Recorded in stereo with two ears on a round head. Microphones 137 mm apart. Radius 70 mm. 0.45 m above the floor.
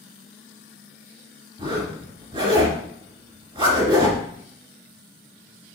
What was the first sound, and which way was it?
A zipper, 30° right (ahead or behind).